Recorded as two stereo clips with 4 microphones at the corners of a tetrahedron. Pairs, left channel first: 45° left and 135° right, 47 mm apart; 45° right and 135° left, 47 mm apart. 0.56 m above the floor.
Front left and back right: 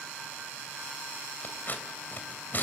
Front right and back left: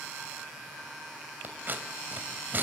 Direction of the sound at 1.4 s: 90° left.